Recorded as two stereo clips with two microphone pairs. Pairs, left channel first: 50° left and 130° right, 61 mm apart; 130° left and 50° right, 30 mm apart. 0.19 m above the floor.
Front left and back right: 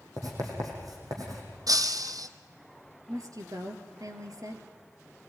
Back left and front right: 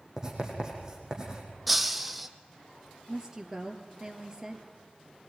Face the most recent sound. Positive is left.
turn(degrees=-120)